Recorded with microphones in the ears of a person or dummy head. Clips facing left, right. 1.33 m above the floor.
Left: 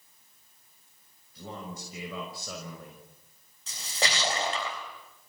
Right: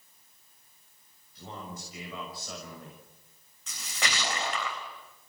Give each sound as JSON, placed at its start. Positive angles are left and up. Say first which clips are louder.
{"t": 1.4, "sound": "a man speaking", "louder": "left 2 dB", "side_deg": 90, "distance_m": 6.5}
{"t": 3.7, "sound": "a splash", "louder": "left 4 dB", "side_deg": 30, "distance_m": 4.0}